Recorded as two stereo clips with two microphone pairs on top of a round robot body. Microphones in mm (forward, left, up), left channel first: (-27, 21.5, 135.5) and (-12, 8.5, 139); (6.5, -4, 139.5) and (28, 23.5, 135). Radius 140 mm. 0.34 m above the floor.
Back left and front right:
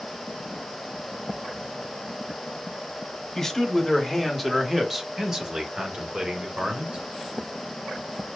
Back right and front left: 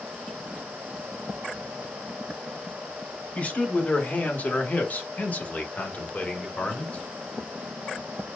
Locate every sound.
3.4 s a man speaking: 165° right, 1.7 m; by 7.0 s 75° right, 2 m